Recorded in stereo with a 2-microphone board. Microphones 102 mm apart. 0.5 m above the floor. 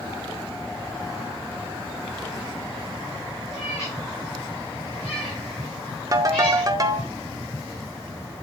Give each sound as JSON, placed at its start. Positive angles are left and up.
{"t": 3.5, "sound": "a cat meowing", "side_deg": 35, "distance_m": 4.5}
{"t": 6.1, "sound": "a ringtone", "side_deg": -35, "distance_m": 0.7}